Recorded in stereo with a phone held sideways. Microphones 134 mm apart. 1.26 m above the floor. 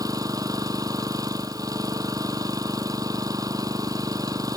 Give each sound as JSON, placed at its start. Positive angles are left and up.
{"t": 0.0, "sound": "an engine running", "side_deg": -25}